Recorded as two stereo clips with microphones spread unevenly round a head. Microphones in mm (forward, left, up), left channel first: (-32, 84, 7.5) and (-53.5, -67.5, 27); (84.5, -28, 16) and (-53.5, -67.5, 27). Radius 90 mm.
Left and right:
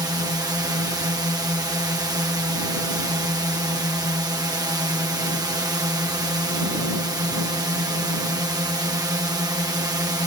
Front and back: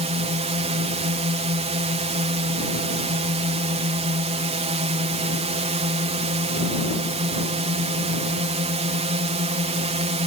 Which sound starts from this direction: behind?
A drone, at 0.0 s.